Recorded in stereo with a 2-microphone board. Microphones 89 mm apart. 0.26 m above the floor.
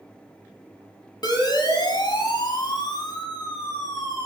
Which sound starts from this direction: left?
A siren, at 1.2 s.